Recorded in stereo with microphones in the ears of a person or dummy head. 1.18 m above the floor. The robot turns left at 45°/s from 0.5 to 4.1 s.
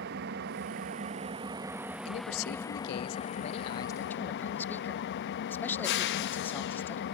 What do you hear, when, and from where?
0.0 s an engine running: 105° right, 0.7 m; by 7.1 s 95° left, 0.7 m
2.0 s a man speaking: 105° left, 0.6 m; by 7.0 s 15° left, 0.6 m